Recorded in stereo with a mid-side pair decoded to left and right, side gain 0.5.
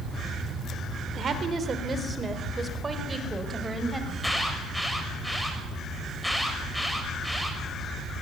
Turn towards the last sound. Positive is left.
turn(degrees=5)